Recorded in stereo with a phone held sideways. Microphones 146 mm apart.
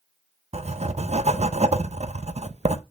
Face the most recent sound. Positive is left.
turn(degrees=-50)  # may be behind; listen again after turning